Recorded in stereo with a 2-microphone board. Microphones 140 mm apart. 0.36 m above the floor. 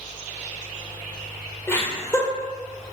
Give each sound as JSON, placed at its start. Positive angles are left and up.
{"t": 1.7, "sound": "laughter", "side_deg": 15, "distance_m": 0.8}